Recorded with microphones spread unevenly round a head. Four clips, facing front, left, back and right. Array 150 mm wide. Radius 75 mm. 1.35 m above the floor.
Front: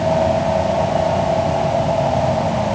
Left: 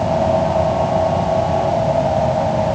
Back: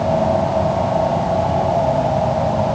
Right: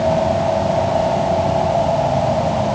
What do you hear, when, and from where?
Only background noise.